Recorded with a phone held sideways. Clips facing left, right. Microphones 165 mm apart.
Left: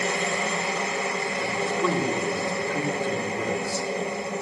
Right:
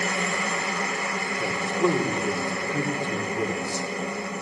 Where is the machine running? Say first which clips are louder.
Left 2 dB; 25° left (ahead or behind), 5 m.